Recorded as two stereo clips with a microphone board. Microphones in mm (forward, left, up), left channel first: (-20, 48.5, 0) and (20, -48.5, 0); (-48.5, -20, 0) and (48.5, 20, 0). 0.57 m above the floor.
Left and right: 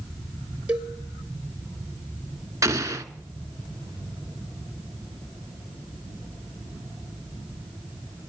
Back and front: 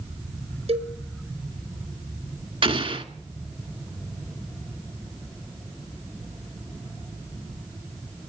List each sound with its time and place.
0.7 s a cowbell: 10° left, 3.5 m
2.6 s an explosion: 5° right, 1.8 m